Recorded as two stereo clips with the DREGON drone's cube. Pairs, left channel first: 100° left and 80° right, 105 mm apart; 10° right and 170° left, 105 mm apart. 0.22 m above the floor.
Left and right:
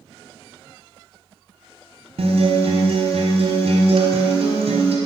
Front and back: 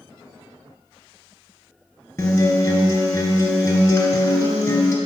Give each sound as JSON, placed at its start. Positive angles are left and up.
{"t": 2.2, "sound": "a guitar", "azimuth_deg": -70, "distance_m": 1.2}